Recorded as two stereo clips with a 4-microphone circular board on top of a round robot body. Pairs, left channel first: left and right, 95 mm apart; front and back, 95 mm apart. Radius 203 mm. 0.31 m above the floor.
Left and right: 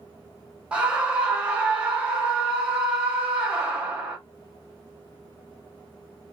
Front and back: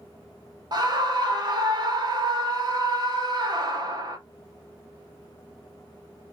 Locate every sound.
0.7 s a scream: 165° right, 1.3 m